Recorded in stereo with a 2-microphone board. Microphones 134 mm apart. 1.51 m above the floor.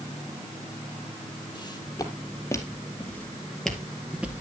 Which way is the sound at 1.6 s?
35° left (ahead or behind).